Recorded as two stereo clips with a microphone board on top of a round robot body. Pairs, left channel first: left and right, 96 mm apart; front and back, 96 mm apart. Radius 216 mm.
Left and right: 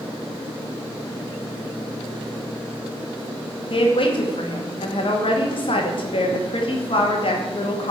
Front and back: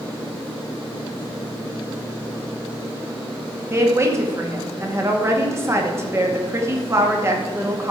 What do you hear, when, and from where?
3.7 s a woman speaking: 120° left, 2.5 m